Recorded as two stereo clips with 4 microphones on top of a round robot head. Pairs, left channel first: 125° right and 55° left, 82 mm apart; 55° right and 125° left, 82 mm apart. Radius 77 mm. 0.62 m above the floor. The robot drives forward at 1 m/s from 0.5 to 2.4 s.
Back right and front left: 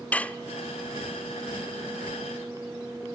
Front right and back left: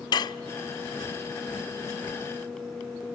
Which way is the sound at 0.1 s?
55° right.